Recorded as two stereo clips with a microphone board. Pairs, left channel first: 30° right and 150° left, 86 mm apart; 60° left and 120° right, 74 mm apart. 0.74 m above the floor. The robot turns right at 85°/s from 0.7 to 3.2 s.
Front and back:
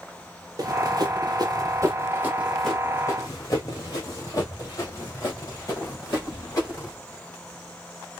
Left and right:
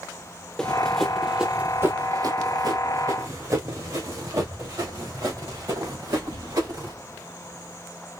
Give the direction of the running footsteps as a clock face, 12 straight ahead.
7 o'clock.